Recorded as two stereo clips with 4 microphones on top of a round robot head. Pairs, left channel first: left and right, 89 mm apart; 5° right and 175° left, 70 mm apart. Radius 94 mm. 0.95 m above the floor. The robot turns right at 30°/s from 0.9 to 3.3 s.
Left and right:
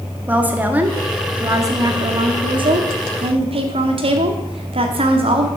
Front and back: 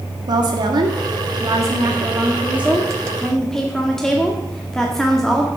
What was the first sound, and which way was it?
A woman speaking, 160° right.